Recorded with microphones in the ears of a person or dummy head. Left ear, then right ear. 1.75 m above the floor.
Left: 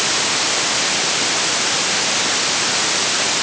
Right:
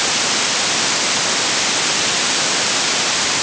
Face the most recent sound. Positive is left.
No sound to turn to.